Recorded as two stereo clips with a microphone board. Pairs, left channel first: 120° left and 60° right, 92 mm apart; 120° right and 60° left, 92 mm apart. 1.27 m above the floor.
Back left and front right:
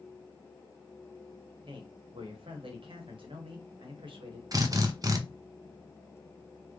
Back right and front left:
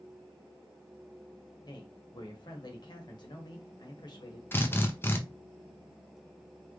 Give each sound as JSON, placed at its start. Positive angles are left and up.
{"t": 1.6, "sound": "a man speaking", "azimuth_deg": -80, "distance_m": 1.0}
{"t": 4.5, "sound": "a drill", "azimuth_deg": -70, "distance_m": 0.5}